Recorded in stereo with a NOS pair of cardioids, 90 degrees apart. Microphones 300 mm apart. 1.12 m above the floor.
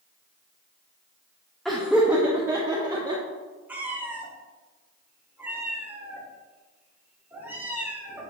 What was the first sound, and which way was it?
Laughter, straight ahead.